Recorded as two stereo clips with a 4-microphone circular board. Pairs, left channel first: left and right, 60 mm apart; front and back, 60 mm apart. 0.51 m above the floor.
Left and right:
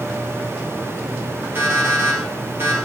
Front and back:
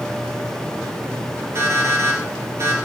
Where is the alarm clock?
140° right, 5.5 m.